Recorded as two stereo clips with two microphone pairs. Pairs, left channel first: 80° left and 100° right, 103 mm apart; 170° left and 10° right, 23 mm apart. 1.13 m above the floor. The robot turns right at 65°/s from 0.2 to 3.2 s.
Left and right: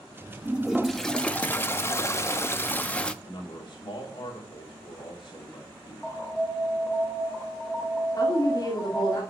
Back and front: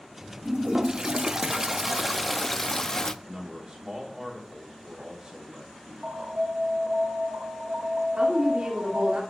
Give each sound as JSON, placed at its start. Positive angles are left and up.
{"t": 0.5, "sound": "a toilet flushing", "azimuth_deg": -30, "distance_m": 0.5}
{"t": 3.2, "sound": "a man speaking", "azimuth_deg": 45, "distance_m": 3.5}
{"t": 6.0, "sound": "an alarm", "azimuth_deg": -5, "distance_m": 2.5}
{"t": 8.2, "sound": "a woman speaking", "azimuth_deg": 35, "distance_m": 2.0}